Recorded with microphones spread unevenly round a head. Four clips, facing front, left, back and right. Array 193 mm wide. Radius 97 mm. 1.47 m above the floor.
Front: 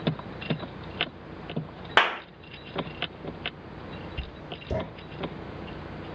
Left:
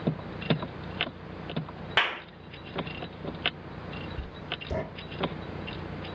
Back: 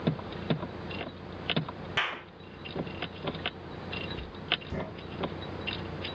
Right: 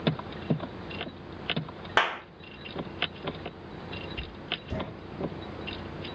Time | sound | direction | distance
2.0 | a clap | 20° right | 1.1 m
4.2 | writing | 15° left | 3.5 m